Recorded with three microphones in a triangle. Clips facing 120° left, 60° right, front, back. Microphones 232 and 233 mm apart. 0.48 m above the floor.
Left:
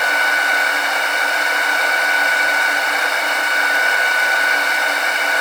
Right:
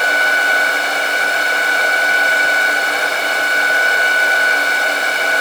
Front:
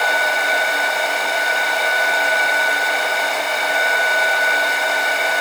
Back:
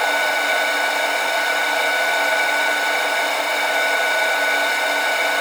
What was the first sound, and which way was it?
Only background noise.